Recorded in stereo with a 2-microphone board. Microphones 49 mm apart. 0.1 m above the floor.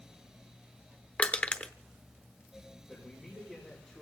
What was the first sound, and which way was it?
Crushing, 30° left (ahead or behind).